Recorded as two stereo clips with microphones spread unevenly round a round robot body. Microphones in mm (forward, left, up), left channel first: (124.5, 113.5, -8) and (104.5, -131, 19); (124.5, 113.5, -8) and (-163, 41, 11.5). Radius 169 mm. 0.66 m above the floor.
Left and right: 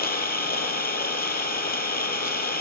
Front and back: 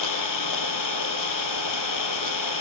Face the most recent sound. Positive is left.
turn(degrees=30)